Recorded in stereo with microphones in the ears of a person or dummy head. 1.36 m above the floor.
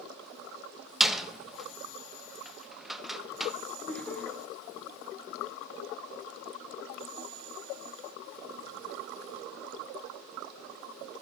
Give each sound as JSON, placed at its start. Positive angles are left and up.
{"t": 1.0, "sound": "a door slam", "side_deg": 5, "distance_m": 0.7}
{"t": 3.9, "sound": "laughter", "side_deg": 10, "distance_m": 1.0}